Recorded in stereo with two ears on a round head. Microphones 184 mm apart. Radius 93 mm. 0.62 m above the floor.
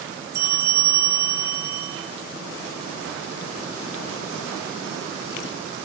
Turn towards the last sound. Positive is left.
turn(degrees=-15)  # may be behind; listen again after turning